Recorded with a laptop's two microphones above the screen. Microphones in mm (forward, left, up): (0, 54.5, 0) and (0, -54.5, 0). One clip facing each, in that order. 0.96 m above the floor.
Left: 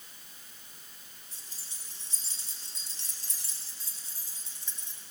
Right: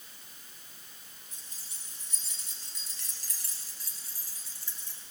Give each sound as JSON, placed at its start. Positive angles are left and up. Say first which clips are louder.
{"t": 1.3, "sound": "keys jangling", "louder": "even", "side_deg": 35, "distance_m": 6.0}